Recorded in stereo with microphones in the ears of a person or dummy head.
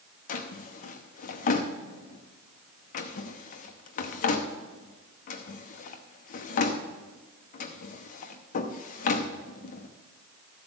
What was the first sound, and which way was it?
A drawer, 45° left (ahead or behind).